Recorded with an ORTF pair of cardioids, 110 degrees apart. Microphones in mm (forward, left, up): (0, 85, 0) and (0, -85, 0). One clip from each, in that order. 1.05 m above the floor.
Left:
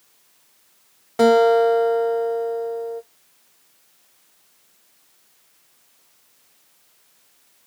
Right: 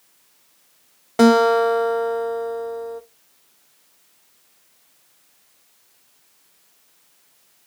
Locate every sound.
1.2 s a guitar: 25° right, 0.6 m